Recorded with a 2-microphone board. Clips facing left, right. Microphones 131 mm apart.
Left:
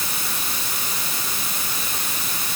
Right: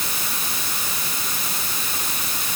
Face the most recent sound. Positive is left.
No sound to turn to.